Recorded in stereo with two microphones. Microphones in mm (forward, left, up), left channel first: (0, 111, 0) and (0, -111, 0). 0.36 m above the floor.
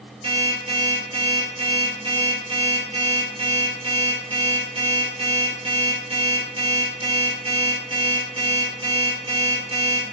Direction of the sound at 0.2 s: 80° right.